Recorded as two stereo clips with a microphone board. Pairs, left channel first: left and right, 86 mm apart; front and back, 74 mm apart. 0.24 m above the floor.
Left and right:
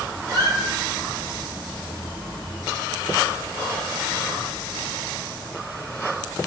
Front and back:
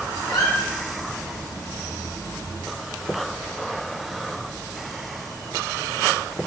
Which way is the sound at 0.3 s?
40° right.